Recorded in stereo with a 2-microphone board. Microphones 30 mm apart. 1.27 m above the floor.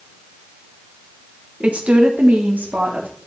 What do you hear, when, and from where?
1.6 s a woman speaking: 45° right (ahead or behind), 1.3 m; by 3.1 s 80° right, 2.5 m